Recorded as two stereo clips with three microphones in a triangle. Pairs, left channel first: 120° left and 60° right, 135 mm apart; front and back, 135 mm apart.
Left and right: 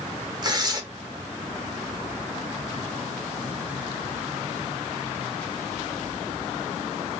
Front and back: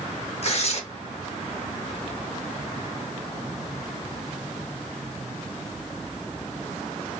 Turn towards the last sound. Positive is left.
turn(degrees=-10)